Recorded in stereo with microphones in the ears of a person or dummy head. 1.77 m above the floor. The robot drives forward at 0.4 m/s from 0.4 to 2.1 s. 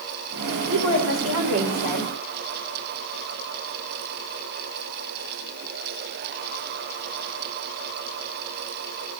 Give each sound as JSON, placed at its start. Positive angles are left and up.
{"t": 0.7, "sound": "a woman speaking", "side_deg": -85, "distance_m": 2.5}